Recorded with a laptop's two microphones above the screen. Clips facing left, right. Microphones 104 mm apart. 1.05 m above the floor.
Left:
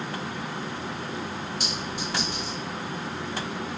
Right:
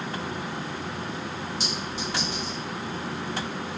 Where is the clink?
55° left (ahead or behind), 1.5 m.